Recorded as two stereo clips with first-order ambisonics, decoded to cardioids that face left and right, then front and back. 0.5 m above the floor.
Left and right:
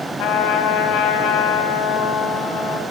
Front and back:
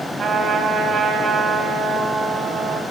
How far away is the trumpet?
About 3 m.